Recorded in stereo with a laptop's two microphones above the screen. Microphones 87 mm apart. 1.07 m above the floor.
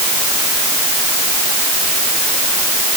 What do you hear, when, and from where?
Only background noise.